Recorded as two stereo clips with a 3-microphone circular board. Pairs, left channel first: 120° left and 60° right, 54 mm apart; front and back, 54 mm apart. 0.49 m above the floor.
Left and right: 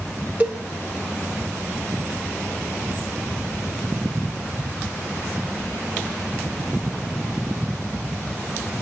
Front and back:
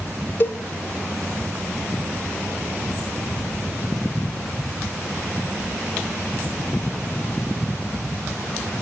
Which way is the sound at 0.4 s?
10° right.